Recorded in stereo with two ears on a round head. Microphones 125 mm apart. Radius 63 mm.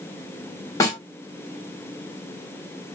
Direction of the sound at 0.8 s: 20° left (ahead or behind).